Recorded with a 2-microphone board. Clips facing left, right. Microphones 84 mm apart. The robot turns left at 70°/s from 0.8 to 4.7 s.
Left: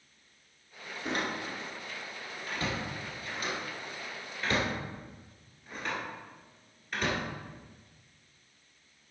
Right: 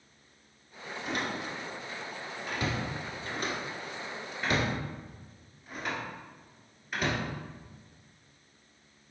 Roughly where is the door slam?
Left.